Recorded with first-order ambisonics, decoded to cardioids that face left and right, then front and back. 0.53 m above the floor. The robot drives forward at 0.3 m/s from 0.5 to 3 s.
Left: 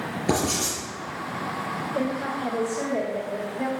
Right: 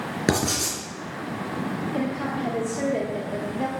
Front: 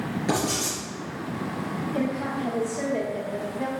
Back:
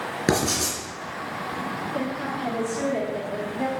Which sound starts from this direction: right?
A woman speaking, at 1.9 s.